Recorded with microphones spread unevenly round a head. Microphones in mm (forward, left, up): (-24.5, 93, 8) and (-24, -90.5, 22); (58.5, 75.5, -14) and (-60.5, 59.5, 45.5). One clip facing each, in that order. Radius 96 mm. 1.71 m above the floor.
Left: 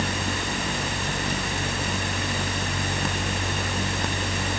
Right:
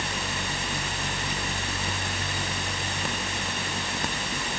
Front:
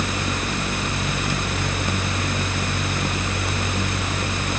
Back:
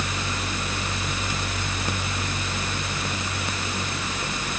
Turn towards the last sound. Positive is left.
No sound to turn to.